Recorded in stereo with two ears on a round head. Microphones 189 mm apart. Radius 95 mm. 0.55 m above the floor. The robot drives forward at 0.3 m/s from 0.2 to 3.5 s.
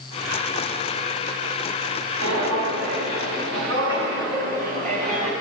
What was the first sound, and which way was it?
Footsteps, 75° right (ahead or behind).